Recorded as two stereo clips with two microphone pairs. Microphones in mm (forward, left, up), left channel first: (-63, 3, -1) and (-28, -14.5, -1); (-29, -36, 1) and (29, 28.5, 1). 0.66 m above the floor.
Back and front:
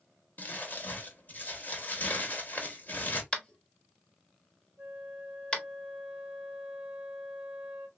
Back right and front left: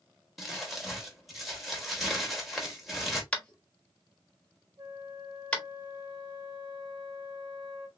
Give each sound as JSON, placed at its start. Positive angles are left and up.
{"t": 0.4, "sound": "crumpling", "azimuth_deg": 140, "distance_m": 1.3}
{"t": 3.3, "sound": "tapping", "azimuth_deg": 165, "distance_m": 1.2}
{"t": 4.8, "sound": "a flute", "azimuth_deg": 30, "distance_m": 1.7}